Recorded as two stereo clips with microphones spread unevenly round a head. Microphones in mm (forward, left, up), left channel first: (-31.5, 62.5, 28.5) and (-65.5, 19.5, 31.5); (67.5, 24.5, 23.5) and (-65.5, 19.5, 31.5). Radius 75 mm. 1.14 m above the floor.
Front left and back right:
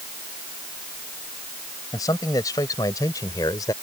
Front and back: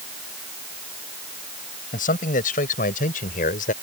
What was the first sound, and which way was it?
A man speaking, 20° left.